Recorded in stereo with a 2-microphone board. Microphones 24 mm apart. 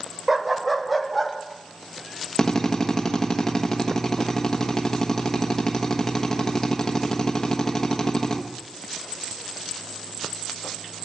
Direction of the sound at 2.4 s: 30° left (ahead or behind).